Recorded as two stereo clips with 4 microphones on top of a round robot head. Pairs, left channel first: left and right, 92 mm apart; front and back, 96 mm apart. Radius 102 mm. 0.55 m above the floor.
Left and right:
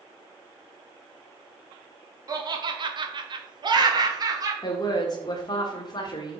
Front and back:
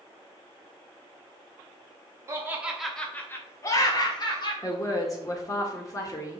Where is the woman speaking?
50° left, 1.6 m.